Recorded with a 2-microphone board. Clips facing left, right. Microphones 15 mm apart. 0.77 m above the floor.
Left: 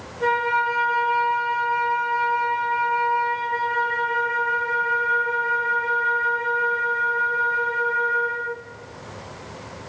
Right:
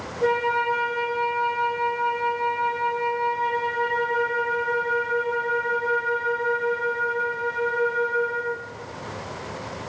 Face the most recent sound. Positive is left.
turn(degrees=55)  # may be behind; listen again after turning